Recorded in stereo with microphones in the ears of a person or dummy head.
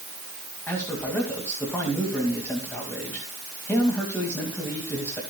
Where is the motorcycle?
I don't hear a motorcycle.